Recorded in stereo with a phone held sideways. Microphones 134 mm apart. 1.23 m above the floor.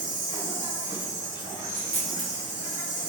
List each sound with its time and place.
0.0 s an insect: 35° left (ahead or behind), 1.5 m
1.7 s a dropped coin: 55° left (ahead or behind), 1.0 m